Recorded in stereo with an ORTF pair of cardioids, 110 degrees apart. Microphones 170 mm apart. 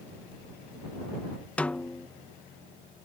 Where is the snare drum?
5° left.